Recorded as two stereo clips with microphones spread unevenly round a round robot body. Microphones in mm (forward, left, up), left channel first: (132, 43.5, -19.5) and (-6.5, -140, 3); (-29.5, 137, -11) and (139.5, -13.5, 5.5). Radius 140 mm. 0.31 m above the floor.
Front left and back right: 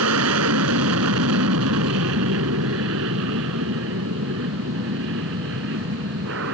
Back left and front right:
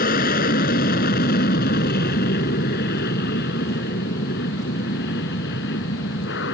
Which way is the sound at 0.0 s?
165° right.